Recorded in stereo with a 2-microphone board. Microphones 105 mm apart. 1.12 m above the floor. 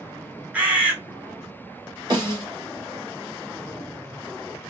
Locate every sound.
0.5 s a bird: 15° right (ahead or behind), 0.9 m
2.1 s a snare drum: 40° right (ahead or behind), 1.7 m